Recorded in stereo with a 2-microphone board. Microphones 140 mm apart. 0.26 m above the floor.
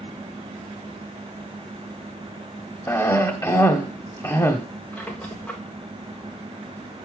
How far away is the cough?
About 0.9 m.